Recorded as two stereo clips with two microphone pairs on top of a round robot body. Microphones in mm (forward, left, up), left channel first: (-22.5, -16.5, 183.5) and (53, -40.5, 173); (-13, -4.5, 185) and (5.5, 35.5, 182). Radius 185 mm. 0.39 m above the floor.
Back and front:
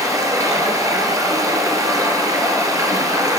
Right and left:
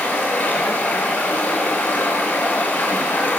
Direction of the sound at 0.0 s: 65° right.